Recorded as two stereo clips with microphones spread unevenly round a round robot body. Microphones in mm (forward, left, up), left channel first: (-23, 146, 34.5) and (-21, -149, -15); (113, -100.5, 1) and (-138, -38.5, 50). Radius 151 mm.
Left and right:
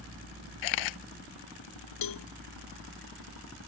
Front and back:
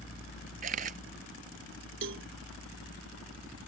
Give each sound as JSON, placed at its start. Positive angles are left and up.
{"t": 0.6, "sound": "a camera shutter", "azimuth_deg": 100}
{"t": 2.0, "sound": "a cowbell", "azimuth_deg": 110}